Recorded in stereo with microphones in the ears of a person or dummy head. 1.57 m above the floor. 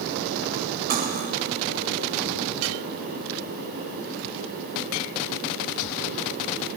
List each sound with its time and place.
0.9 s cutlery clinking: 45° right (ahead or behind), 4.5 m